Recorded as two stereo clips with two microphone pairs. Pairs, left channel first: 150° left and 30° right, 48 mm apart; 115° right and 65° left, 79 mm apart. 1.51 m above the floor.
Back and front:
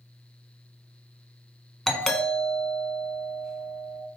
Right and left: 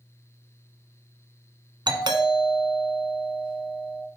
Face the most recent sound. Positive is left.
turn(degrees=70)